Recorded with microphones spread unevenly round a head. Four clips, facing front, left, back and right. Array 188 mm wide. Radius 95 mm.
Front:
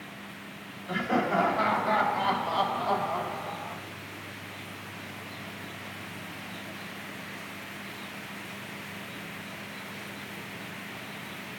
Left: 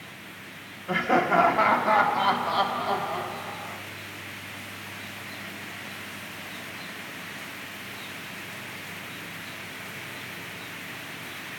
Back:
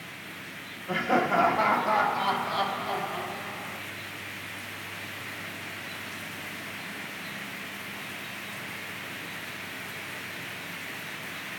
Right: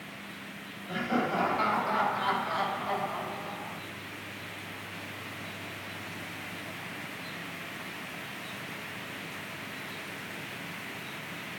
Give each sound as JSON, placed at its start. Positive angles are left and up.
{"t": 0.9, "sound": "laughter", "azimuth_deg": 115, "distance_m": 1.7}